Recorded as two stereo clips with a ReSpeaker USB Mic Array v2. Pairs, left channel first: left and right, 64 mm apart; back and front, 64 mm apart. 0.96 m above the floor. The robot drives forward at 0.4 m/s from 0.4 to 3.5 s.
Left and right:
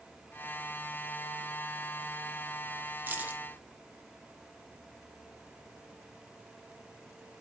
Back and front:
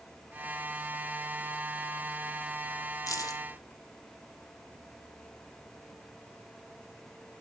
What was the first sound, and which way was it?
Keys jangling, 150° right.